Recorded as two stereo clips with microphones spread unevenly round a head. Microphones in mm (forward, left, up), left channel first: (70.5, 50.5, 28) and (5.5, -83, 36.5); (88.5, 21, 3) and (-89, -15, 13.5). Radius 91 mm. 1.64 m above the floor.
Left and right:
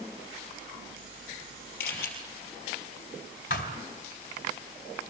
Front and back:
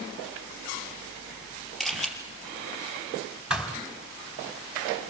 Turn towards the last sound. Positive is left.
turn(degrees=110)